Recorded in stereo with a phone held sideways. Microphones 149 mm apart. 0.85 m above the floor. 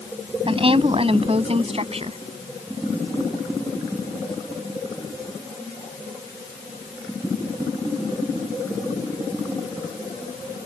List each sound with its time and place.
0.5 s a woman speaking: 40° right (ahead or behind); by 2.2 s 45° right (ahead or behind)